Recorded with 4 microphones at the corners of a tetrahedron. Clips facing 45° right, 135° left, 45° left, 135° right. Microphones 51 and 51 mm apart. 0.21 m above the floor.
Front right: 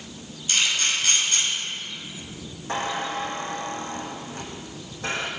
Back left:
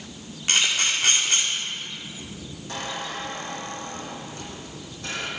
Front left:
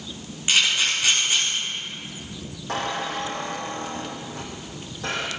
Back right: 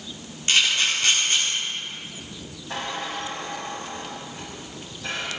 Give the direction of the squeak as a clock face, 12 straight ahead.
12 o'clock.